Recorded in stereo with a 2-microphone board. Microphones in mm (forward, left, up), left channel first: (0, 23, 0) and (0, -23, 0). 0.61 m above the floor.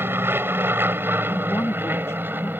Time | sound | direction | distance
0.0 | an aircraft | 55° right (ahead or behind) | ?
1.3 | a woman speaking | 65° left (ahead or behind) | ?